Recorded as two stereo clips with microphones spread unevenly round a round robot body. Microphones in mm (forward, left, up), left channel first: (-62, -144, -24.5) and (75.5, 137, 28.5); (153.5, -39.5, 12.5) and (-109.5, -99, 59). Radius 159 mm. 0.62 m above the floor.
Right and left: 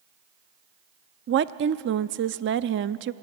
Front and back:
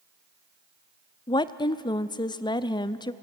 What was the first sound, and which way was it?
A woman speaking, 40° left.